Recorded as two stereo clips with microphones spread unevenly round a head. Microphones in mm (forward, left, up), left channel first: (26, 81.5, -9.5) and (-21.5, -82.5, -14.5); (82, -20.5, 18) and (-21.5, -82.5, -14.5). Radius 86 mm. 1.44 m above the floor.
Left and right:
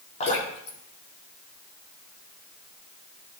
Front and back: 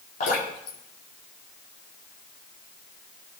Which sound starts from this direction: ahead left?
Dripping, at 0.2 s.